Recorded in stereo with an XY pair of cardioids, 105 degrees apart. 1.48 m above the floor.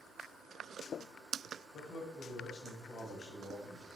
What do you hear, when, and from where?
1.7 s a man speaking: 65° left, 2.5 m; by 3.9 s 25° left, 2.5 m